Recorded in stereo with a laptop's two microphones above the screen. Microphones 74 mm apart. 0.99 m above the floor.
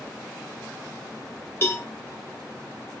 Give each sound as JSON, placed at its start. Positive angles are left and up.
{"t": 1.6, "sound": "a cowbell", "side_deg": 30, "distance_m": 1.7}